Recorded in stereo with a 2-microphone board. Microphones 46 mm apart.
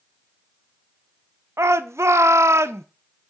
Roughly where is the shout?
Right.